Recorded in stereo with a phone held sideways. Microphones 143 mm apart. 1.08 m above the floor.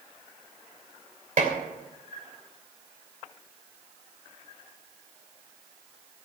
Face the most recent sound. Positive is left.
turn(degrees=-65)  # may be behind; listen again after turning